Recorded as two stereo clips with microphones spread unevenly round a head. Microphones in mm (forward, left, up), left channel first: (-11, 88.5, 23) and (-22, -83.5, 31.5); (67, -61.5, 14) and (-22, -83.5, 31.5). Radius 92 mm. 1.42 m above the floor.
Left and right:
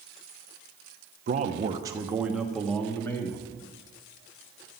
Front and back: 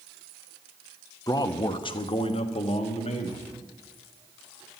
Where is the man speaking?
45° right, 0.9 m; by 3.5 s 10° left, 1.8 m.